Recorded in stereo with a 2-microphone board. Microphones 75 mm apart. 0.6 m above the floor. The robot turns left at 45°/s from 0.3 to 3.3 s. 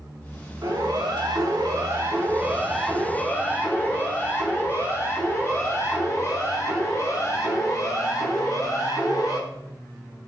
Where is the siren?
70° right (ahead or behind), 8 m; by 9.4 s 55° left (ahead or behind), 7.5 m.